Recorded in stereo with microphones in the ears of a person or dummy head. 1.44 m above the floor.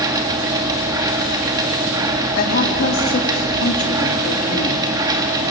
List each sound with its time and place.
0.0 s a machine running: 25° right (ahead or behind), 2.5 m
2.4 s a woman speaking: 55° left (ahead or behind), 3 m